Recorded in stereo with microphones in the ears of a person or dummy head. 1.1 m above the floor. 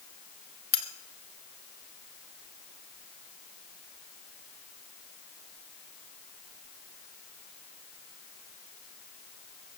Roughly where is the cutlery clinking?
Left.